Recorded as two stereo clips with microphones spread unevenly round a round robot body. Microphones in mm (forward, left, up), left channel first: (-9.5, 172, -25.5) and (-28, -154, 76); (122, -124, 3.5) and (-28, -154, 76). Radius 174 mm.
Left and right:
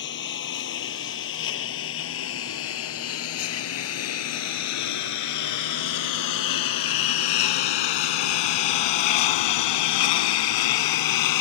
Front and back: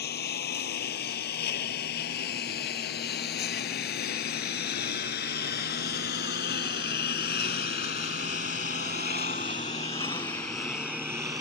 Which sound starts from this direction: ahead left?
A lawn mower, at 0.0 s.